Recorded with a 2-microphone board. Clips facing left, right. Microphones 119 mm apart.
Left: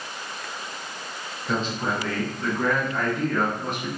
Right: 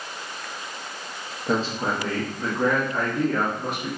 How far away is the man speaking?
About 0.7 m.